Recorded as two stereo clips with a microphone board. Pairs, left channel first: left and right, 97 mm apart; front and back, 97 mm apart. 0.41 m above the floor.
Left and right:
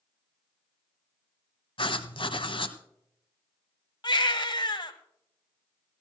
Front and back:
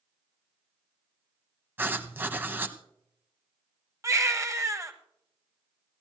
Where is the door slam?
I don't hear a door slam.